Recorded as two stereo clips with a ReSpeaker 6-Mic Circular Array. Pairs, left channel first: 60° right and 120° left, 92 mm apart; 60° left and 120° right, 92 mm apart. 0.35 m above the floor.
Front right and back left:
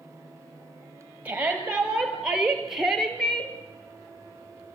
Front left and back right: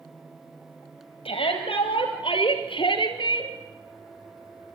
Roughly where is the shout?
Ahead left.